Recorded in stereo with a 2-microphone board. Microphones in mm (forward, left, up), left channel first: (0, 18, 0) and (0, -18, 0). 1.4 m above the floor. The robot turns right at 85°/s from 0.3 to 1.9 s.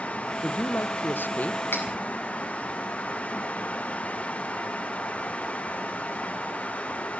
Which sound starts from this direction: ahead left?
A woman speaking, at 0.4 s.